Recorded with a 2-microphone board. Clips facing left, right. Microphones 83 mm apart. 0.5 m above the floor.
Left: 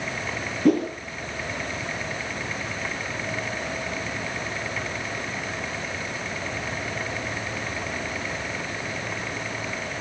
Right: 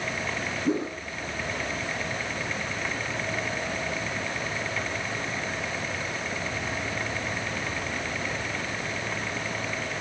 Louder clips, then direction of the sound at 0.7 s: Left 8 dB; 75° left (ahead or behind).